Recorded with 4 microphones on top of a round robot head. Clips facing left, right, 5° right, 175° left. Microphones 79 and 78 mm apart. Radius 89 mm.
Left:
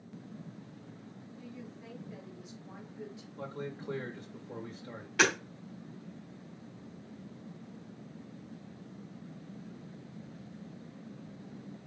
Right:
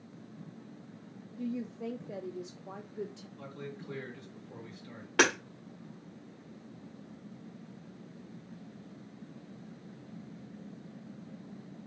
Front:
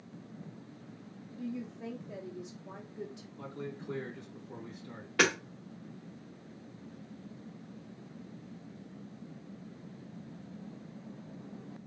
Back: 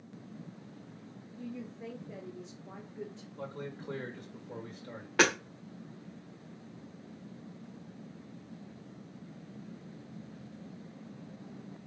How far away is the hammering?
About 1.9 m.